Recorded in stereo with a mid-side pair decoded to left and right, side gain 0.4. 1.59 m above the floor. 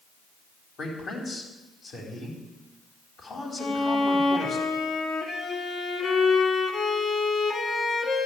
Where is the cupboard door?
No cupboard door in this recording.